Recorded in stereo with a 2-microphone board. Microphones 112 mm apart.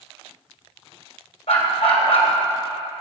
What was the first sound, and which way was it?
A dog barking, 65° left (ahead or behind).